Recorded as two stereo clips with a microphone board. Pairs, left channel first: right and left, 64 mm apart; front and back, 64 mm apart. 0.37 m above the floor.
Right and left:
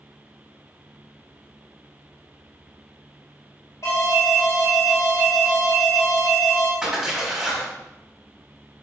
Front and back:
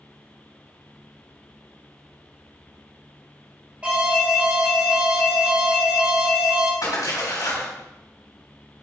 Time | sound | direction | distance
3.8 | an alarm | 115° right | 2 m
6.8 | a splash | straight ahead | 3.5 m